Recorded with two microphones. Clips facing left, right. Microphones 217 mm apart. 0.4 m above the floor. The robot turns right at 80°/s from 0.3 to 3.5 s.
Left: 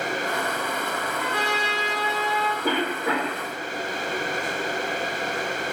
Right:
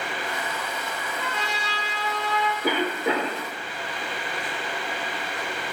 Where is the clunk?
I don't hear a clunk.